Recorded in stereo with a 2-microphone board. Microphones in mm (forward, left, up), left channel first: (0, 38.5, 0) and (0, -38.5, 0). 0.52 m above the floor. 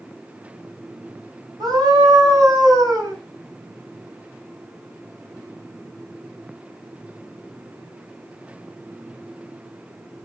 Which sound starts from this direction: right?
A scream, at 1.6 s.